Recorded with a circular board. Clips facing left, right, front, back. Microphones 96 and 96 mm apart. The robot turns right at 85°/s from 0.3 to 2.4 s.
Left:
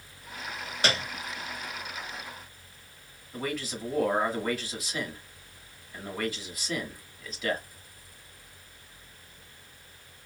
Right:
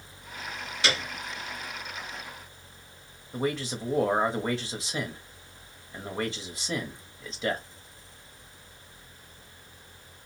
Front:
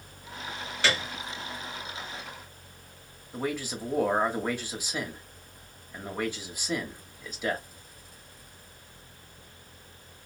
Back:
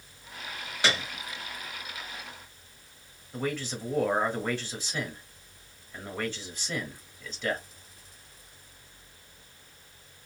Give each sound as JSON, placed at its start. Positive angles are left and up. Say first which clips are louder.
{"t": 0.8, "sound": "a piano", "louder": "left 1 dB, even", "azimuth_deg": 110, "distance_m": 1.2}
{"t": 3.3, "sound": "a man speaking", "louder": "right 4 dB, even", "azimuth_deg": -65, "distance_m": 1.0}